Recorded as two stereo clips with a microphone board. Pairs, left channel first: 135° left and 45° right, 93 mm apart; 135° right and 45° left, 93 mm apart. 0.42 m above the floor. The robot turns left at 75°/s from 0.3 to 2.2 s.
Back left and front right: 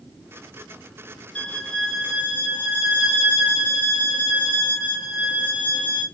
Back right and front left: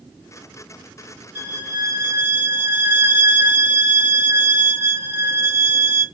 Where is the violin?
95° left, 1.2 m; by 6.0 s 35° left, 1.2 m.